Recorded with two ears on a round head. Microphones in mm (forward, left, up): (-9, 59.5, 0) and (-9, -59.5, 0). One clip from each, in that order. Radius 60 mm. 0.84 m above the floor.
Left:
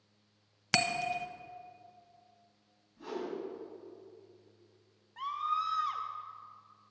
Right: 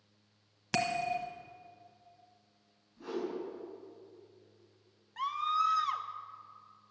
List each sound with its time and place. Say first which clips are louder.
0.7 s a bell: left 2 dB; 40° left (ahead or behind), 0.9 m
3.0 s a whoosh: right 1 dB; 10° left (ahead or behind), 4 m
5.2 s a scream: right 2 dB; 40° right (ahead or behind), 0.7 m